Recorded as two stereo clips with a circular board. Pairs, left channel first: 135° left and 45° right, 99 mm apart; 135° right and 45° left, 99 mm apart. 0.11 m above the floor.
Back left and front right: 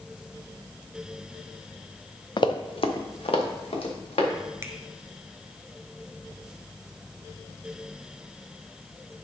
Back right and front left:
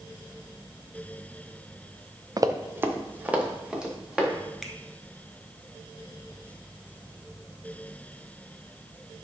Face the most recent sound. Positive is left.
turn(degrees=-45)